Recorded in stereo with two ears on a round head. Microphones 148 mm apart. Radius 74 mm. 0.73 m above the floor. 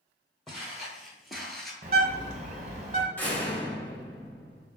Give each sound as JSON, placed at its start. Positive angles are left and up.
{"t": 0.5, "sound": "footsteps", "side_deg": 0, "distance_m": 1.3}
{"t": 1.8, "sound": "a bird", "side_deg": -40, "distance_m": 0.8}
{"t": 3.2, "sound": "a door slam", "side_deg": 10, "distance_m": 0.9}